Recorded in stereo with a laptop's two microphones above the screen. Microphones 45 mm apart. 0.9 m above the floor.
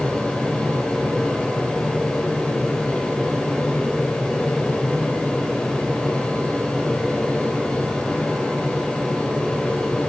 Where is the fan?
20° left (ahead or behind), 0.9 m.